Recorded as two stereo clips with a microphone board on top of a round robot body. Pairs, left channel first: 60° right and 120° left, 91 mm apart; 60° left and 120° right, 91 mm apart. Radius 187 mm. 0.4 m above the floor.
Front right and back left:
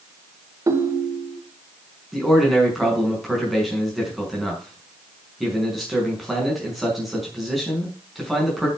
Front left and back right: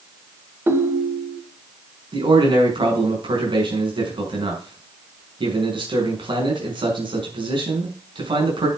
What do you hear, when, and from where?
0.7 s a ringtone: 175° left, 1.5 m
2.1 s a man speaking: 150° right, 5.5 m